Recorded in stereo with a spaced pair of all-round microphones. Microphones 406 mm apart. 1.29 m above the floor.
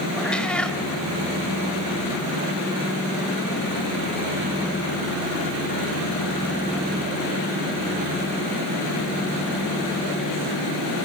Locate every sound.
0.2 s a cat meowing: 5° left (ahead or behind), 1.2 m